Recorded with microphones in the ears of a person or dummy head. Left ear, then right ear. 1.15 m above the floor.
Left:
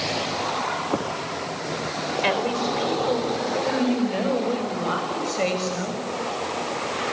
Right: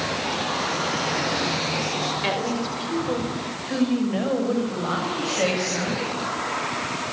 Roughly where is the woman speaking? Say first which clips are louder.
Left 2 dB; left.